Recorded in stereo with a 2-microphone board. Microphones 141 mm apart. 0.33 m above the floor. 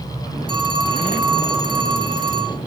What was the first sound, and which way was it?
A phone ringing, 35° right (ahead or behind).